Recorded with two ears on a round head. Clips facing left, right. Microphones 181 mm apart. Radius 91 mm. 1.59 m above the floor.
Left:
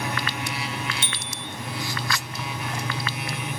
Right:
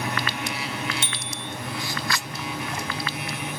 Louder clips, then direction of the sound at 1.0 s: Right 1 dB; 40° right (ahead or behind).